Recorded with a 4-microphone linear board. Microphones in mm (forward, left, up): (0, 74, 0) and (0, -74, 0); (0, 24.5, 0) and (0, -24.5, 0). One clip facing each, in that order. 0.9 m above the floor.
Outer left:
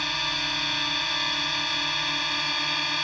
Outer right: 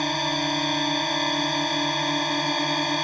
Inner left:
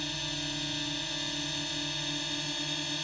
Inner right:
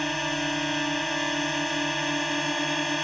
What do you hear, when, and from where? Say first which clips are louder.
0.0 s a drone: outer right 9 dB, inner right 10 dB; 45° right (ahead or behind)